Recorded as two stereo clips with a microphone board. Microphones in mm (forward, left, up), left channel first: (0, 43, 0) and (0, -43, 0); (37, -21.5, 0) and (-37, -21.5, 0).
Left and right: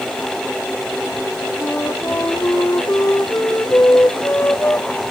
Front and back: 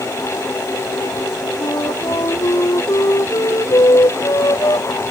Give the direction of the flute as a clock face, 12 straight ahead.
11 o'clock.